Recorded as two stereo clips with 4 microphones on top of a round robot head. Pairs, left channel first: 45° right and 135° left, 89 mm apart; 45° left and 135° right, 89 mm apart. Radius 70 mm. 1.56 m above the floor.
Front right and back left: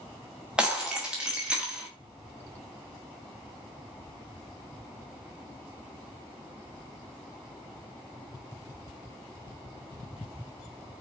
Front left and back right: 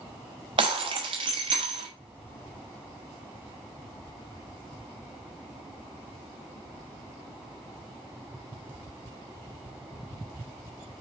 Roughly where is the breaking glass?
Behind right.